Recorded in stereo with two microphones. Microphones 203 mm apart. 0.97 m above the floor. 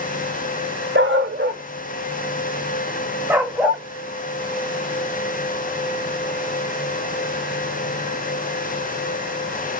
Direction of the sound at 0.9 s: 70° right (ahead or behind).